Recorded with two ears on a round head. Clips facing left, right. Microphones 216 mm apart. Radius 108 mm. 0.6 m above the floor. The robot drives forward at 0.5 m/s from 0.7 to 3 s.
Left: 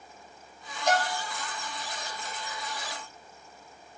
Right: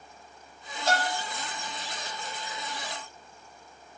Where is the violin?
15° left (ahead or behind), 1.3 m.